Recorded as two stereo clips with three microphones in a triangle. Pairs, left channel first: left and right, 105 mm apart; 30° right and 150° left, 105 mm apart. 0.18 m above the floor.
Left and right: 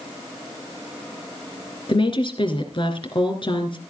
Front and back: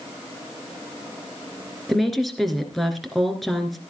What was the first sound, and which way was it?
A woman speaking, 60° left.